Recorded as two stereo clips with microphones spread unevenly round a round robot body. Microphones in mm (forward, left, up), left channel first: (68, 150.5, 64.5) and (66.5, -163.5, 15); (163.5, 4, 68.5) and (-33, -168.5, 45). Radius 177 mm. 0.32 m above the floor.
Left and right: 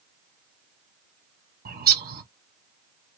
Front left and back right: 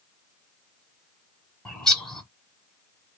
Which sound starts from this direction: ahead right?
A bird, at 1.6 s.